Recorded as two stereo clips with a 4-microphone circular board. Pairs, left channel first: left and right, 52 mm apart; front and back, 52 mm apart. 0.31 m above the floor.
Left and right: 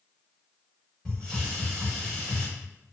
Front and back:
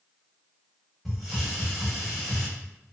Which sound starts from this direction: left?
A hiss, at 1.1 s.